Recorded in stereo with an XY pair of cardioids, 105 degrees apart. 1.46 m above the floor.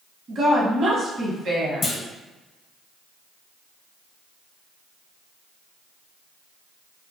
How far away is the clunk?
About 0.7 m.